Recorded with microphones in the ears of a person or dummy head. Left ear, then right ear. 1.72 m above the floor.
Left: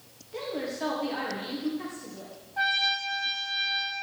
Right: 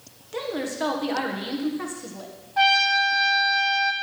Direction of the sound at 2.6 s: 30° right (ahead or behind).